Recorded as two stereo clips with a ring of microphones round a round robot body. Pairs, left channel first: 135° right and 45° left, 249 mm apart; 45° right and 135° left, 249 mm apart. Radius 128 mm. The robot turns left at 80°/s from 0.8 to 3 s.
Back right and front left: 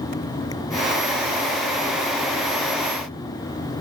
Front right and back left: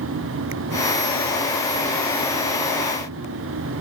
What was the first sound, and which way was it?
Only background noise.